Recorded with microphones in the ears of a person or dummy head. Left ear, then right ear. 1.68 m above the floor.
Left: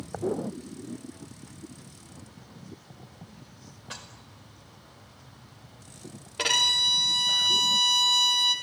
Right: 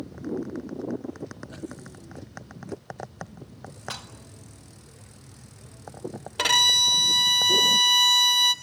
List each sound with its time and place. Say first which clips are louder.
3.9 s dishes clattering: right 4 dB; 55° right (ahead or behind), 1.6 m
6.4 s a violin: right 4 dB; 40° right (ahead or behind), 1.0 m